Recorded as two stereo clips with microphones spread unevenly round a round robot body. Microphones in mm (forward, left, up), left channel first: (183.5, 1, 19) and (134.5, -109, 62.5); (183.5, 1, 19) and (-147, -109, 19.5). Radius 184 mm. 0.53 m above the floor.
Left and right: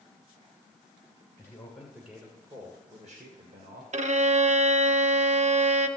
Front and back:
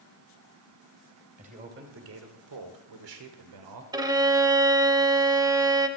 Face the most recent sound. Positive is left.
turn(degrees=-80)